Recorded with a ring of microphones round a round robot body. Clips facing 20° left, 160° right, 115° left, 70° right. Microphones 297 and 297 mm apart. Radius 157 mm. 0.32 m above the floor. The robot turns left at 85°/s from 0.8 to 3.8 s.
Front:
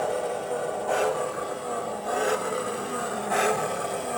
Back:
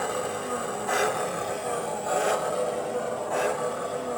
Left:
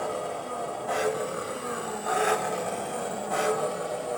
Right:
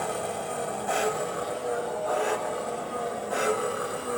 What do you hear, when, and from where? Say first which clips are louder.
0.0 s an engine running: front 2 dB, even; 110° right, 1.3 m; by 4.2 s 5° right, 1.3 m